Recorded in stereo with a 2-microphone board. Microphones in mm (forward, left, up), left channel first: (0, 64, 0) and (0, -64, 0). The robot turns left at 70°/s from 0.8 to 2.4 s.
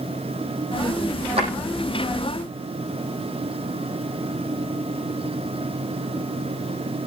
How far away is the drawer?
About 9.5 m.